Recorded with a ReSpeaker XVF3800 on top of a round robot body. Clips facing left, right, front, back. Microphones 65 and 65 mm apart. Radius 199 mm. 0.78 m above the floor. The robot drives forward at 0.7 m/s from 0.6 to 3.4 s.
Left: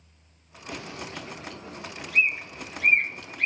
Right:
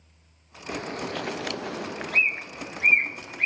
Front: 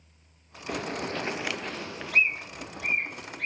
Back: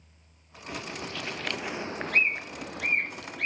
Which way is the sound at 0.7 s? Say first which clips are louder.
Right 6 dB, front 5 dB; 35° right.